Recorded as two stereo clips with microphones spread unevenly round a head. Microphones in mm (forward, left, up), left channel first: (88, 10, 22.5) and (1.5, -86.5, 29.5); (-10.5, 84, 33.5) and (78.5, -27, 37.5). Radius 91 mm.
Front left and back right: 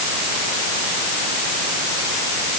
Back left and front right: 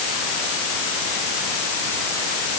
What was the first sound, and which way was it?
Only background noise.